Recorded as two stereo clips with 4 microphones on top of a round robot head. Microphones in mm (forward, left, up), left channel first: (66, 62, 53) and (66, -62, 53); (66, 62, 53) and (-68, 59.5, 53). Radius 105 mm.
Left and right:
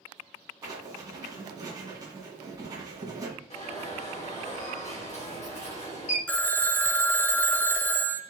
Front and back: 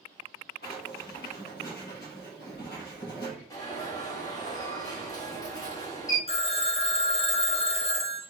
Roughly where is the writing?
Ahead right.